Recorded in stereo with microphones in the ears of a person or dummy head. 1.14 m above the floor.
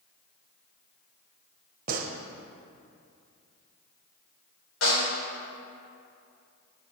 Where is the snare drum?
80° left, 4.5 m.